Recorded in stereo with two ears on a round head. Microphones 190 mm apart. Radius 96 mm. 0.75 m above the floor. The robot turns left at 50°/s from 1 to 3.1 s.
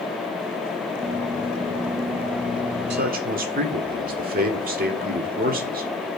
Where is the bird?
I don't hear a bird.